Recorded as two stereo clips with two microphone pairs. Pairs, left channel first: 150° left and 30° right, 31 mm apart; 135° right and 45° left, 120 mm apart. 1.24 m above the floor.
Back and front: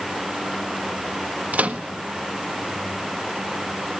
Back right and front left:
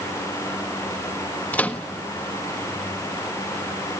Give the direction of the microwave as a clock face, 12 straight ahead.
2 o'clock.